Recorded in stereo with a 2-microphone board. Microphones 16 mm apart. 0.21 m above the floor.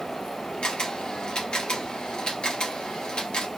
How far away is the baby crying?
No baby crying in this recording.